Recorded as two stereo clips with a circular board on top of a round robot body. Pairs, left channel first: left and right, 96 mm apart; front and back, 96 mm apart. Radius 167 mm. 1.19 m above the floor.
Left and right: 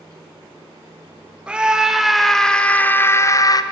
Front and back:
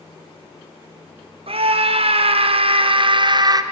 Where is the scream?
170° right, 2.5 m; by 3.6 s 135° left, 1.7 m.